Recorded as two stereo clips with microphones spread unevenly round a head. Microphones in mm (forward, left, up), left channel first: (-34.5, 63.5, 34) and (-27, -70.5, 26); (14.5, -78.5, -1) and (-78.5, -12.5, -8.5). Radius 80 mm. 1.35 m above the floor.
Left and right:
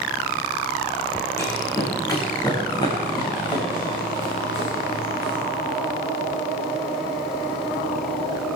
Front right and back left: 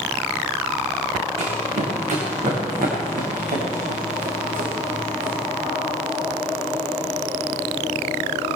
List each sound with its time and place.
1.4 s running footsteps: 160° left, 5 m; by 5.4 s 135° left, 6 m